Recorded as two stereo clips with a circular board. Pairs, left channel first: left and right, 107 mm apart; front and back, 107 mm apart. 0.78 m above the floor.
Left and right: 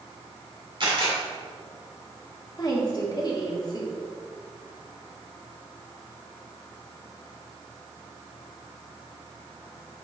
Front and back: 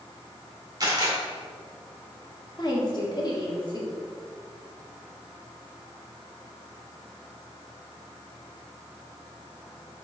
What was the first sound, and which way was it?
A camera shutter, 130° right.